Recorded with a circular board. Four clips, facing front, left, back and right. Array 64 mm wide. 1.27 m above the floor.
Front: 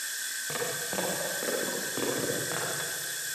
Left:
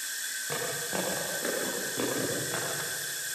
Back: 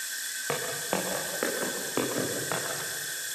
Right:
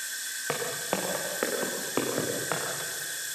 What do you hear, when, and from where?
0.5 s footsteps: 125° right, 8.5 m; by 2.6 s 110° right, 9 m